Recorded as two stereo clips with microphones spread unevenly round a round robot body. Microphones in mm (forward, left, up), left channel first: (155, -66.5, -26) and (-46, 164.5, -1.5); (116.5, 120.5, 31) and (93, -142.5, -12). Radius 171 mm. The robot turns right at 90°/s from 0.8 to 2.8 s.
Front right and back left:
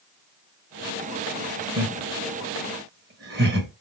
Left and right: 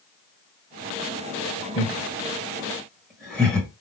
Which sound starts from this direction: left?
Laughter, at 1.8 s.